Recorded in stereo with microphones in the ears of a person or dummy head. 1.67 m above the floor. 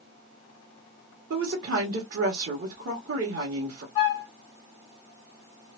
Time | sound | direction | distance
1.3 | a woman speaking | 60° right (ahead or behind) | 1.0 m
4.0 | a flute | 30° left (ahead or behind) | 1.5 m